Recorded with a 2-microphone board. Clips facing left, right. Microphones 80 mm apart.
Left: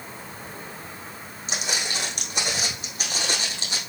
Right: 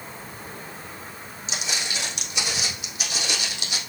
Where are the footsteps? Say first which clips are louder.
Left 2 dB; 50° left (ahead or behind), 4 m; by 3.8 s 35° left (ahead or behind), 3.5 m.